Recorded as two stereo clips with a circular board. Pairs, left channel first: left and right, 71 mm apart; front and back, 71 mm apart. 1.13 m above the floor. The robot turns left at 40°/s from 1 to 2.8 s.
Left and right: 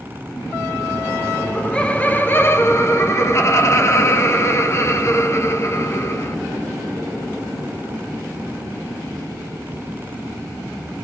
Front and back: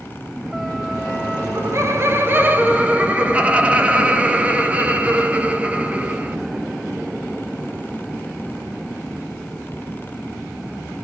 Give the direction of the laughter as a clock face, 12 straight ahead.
6 o'clock.